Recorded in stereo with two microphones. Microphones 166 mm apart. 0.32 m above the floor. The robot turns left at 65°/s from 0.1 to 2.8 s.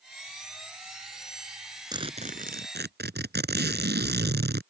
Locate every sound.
1.9 s a zipper: 25° right; by 4.6 s 80° right